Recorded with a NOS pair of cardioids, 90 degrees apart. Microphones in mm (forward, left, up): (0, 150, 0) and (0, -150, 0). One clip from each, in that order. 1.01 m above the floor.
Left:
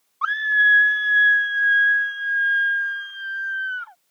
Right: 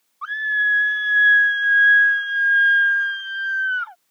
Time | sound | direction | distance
0.2 | a scream | 45° left | ?